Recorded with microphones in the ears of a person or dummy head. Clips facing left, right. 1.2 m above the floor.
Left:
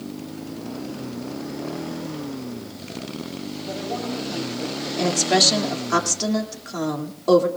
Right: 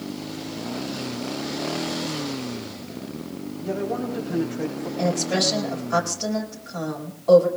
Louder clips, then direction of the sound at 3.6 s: Right 4 dB; 20° right (ahead or behind).